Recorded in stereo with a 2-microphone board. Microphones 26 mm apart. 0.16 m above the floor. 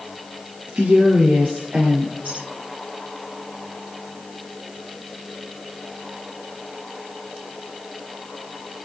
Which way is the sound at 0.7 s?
65° right (ahead or behind).